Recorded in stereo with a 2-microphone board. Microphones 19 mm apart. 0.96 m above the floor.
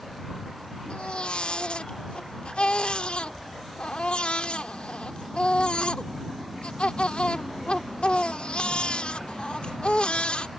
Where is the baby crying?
65° left (ahead or behind).